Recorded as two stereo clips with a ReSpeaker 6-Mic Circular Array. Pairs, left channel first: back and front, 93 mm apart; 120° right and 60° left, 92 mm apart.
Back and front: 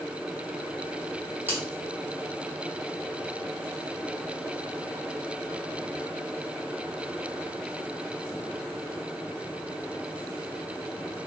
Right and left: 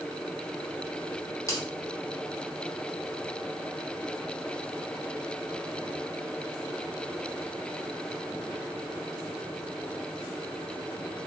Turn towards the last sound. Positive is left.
turn(degrees=-70)